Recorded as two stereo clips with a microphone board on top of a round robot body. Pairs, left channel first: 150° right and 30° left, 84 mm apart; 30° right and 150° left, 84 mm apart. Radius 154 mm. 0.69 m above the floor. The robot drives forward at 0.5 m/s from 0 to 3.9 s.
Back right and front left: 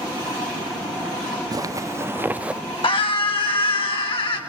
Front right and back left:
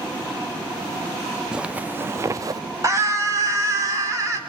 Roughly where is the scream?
Behind right.